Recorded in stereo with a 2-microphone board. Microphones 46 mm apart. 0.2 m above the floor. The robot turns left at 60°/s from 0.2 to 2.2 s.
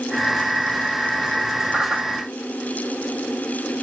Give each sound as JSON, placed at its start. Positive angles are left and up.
{"t": 1.7, "sound": "a whoosh", "side_deg": -20, "distance_m": 6.0}